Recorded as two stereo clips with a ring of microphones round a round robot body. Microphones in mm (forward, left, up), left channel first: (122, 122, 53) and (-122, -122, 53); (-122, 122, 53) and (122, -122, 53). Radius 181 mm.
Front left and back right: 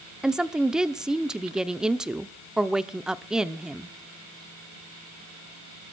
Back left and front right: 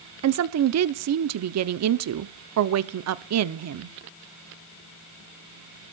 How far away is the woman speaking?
About 0.8 m.